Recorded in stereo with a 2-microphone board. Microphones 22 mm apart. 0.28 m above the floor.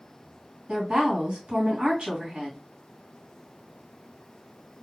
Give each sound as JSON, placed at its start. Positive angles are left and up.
{"t": 0.7, "sound": "a woman speaking", "side_deg": -55, "distance_m": 2.5}